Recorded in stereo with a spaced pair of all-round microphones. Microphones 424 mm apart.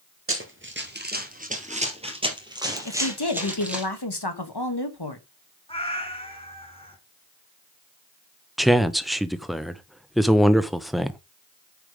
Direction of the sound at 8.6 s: Centre (ahead or behind).